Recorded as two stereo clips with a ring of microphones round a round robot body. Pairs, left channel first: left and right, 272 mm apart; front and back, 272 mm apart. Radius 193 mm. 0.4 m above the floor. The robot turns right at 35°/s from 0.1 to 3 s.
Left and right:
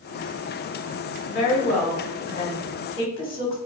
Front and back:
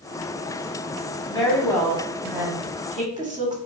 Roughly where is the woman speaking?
Left.